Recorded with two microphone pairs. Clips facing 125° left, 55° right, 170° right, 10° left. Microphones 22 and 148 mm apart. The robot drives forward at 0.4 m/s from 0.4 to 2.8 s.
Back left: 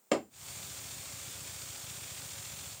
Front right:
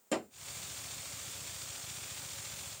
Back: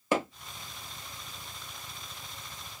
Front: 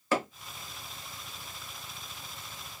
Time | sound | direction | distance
0.1 | hammering | 125° left | 0.9 m